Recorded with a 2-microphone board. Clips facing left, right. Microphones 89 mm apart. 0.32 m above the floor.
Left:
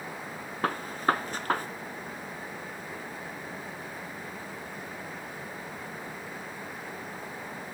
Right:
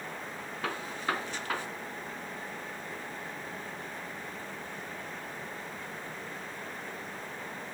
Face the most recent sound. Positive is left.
turn(degrees=45)  # may be behind; listen again after turning